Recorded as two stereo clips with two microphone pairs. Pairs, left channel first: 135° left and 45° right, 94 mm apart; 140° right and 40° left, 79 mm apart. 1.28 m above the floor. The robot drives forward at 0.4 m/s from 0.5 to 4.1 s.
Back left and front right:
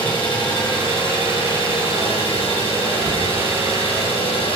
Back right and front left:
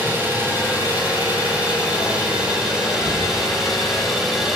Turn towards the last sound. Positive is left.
turn(degrees=125)